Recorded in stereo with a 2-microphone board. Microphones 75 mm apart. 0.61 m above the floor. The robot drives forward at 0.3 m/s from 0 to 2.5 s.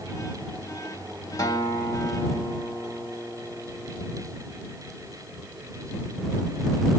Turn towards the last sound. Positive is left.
turn(degrees=40)  # may be behind; listen again after turning